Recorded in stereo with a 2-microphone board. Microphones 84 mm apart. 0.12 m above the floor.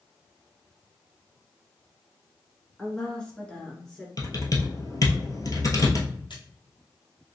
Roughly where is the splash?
Left.